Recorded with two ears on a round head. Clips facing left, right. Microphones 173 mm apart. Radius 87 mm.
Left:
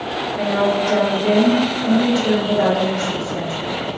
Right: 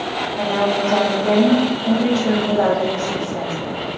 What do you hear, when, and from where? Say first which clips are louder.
0.4 s a woman speaking: left 1 dB; 10° left (ahead or behind), 0.9 m